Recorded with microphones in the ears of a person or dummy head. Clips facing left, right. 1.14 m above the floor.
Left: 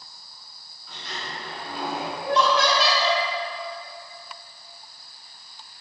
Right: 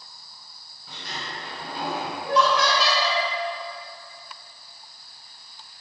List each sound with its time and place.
0.9 s a sliding door: 45° right (ahead or behind), 1.8 m
2.2 s laughter: 35° left (ahead or behind), 2 m